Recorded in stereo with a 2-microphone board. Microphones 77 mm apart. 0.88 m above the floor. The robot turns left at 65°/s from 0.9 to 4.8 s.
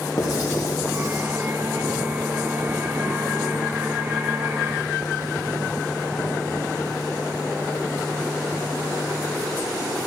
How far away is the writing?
About 1.5 m.